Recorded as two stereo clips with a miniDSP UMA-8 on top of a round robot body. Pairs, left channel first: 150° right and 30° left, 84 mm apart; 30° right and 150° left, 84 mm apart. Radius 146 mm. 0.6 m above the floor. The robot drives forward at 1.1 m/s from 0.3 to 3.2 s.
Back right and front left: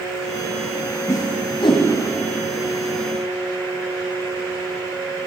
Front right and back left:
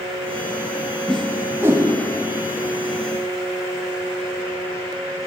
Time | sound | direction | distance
1.1 | a whoosh | 110° right | 0.7 m